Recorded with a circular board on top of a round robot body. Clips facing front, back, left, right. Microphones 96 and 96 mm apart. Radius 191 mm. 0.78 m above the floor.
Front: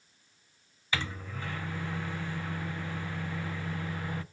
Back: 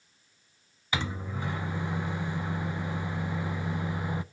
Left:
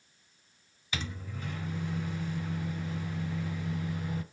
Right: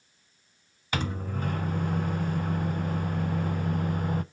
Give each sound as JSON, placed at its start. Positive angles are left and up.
{"t": 0.9, "sound": "a microwave", "azimuth_deg": -110, "distance_m": 0.5}